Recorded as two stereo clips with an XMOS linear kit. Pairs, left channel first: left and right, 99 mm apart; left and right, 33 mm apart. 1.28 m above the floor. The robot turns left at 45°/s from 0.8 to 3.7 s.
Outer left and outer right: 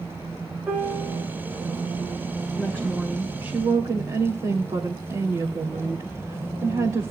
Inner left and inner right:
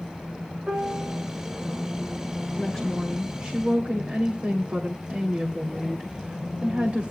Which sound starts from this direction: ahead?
A woman speaking, at 2.6 s.